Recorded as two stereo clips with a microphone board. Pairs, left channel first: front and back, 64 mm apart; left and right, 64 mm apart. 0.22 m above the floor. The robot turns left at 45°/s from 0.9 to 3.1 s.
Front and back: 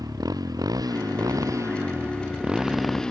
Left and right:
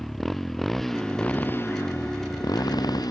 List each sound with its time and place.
0.0 s a motorcycle: 175° left; by 3.1 s 75° left